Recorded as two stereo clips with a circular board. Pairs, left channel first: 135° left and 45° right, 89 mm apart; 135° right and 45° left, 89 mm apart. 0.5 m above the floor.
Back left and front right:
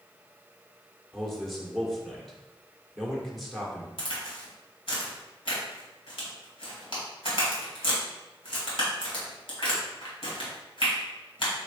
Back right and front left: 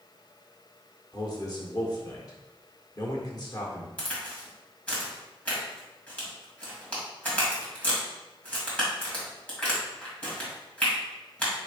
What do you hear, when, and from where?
1.1 s a man speaking: 135° right, 1.2 m
4.0 s a crack: 150° left, 1.9 m